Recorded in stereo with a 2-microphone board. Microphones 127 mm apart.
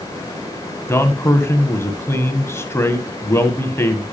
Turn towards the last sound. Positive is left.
turn(degrees=20)  # may be behind; listen again after turning